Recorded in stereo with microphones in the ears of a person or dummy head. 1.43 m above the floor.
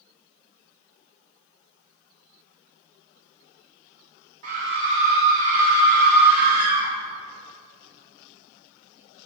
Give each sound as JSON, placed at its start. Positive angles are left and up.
{"t": 4.4, "sound": "a scream", "side_deg": -70, "distance_m": 1.8}